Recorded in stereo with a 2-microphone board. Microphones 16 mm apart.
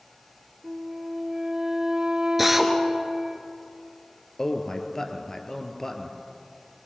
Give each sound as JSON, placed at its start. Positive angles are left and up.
{"t": 0.6, "sound": "a flute", "side_deg": -55, "distance_m": 1.2}
{"t": 2.4, "sound": "a drill", "side_deg": -10, "distance_m": 2.0}
{"t": 4.4, "sound": "a man speaking", "side_deg": 30, "distance_m": 1.9}